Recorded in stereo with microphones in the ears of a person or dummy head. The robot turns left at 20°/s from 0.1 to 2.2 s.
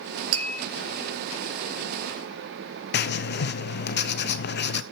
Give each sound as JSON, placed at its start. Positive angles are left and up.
{"t": 0.3, "sound": "tapping", "side_deg": -80, "distance_m": 3.5}
{"t": 2.9, "sound": "writing", "side_deg": 50, "distance_m": 0.6}